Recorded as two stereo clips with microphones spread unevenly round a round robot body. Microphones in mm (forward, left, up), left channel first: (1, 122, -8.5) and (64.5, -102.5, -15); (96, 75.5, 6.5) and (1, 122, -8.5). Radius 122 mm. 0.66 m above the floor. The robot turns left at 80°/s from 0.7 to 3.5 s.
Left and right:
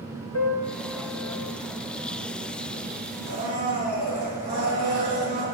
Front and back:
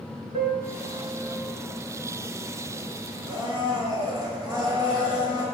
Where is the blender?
50° right, 5.5 m; by 5.5 s 70° right, 5.5 m.